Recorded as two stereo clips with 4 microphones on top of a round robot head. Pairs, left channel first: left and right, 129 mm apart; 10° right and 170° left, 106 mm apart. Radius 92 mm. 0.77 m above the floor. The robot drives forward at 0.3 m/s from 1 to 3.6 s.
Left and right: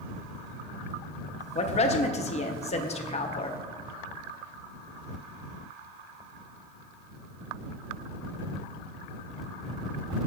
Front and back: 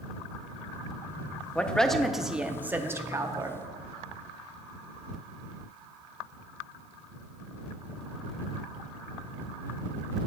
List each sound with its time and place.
1.6 s a woman speaking: 65° left, 0.8 m; by 3.6 s 120° left, 0.8 m